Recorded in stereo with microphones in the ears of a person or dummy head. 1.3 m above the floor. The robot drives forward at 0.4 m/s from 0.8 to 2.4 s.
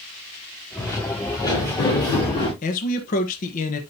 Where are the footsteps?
15° left (ahead or behind), 5.5 m; by 2.5 s 25° left (ahead or behind), 7 m.